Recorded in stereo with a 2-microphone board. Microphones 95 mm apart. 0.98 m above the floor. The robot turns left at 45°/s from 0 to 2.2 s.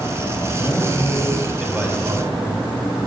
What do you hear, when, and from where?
0.6 s a man speaking: 40° left, 5.5 m; by 2.6 s 35° right, 5.5 m